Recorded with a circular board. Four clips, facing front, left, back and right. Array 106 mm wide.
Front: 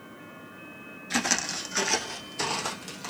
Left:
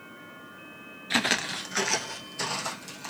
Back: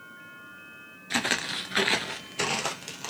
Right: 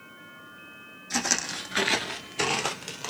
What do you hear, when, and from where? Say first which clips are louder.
1.1 s footsteps: left 3 dB, even; 100° left, 0.7 m; by 3.1 s 120° right, 1.2 m